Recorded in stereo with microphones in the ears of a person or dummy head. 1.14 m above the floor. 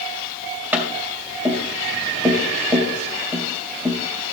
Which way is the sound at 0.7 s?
15° right (ahead or behind).